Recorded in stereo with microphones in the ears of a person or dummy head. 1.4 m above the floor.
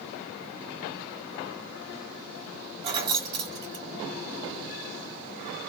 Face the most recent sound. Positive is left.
turn(degrees=-25)  # may be behind; listen again after turning